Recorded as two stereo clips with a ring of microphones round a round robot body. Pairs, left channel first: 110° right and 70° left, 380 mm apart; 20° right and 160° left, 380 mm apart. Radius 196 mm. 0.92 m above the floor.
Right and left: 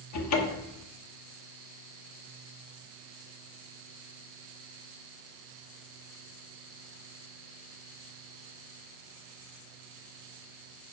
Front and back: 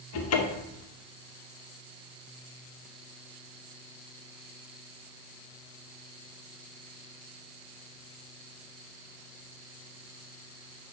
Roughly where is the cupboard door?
Right.